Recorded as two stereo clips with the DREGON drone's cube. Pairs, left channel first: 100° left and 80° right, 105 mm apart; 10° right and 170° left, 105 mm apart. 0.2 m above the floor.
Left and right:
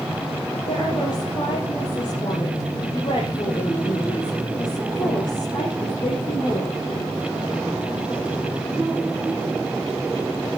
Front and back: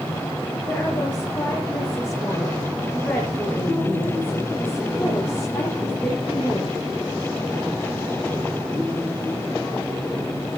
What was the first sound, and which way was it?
A woman speaking, 65° left.